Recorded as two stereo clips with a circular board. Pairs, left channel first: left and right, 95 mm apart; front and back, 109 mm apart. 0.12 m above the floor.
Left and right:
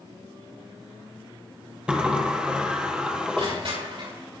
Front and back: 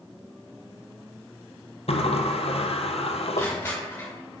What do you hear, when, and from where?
1.9 s a sliding door: 10° right, 1.5 m
3.4 s crushing: 70° right, 6.5 m